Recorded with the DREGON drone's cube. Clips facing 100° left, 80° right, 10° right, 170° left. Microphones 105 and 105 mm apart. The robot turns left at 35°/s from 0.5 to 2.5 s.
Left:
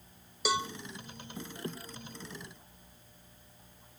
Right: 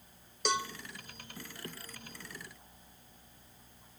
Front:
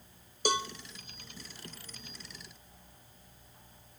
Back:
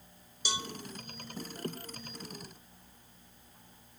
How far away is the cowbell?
About 1.0 m.